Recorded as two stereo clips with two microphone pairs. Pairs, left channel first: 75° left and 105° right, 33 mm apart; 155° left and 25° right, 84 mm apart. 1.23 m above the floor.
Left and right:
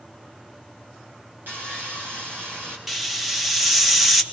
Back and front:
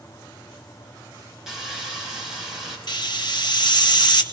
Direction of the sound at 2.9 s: 170° left.